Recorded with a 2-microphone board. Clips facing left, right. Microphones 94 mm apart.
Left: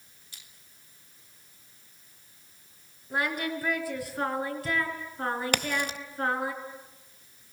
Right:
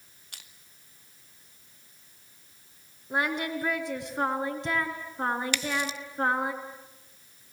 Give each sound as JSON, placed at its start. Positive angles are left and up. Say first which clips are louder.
{"t": 0.3, "sound": "crushing", "louder": "right 4 dB", "side_deg": -65, "distance_m": 2.0}
{"t": 3.1, "sound": "singing", "louder": "right 1 dB", "side_deg": -20, "distance_m": 3.5}
{"t": 5.5, "sound": "a crack", "louder": "left 1 dB", "side_deg": 55, "distance_m": 0.8}